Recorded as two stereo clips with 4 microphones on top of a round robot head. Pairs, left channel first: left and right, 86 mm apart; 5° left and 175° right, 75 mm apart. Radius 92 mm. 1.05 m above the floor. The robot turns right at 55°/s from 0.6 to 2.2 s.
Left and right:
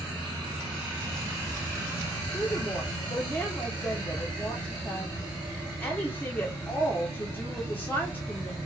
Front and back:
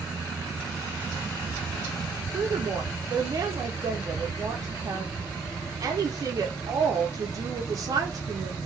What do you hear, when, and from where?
2.3 s a woman speaking: 155° left, 0.5 m